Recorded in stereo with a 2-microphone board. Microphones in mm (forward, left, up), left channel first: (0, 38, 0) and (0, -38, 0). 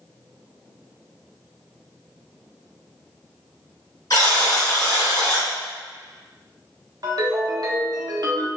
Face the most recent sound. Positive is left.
turn(degrees=-60)  # may be behind; listen again after turning